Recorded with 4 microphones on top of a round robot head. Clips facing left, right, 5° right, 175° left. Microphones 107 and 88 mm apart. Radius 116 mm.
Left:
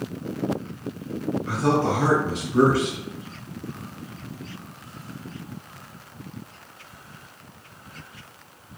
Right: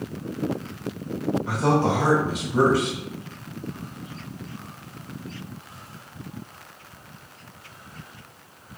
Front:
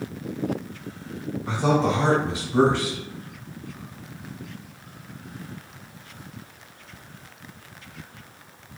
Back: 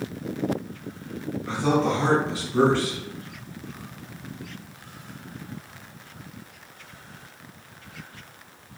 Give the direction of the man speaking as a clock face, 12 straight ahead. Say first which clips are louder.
Even, front 1 dB; 1 o'clock.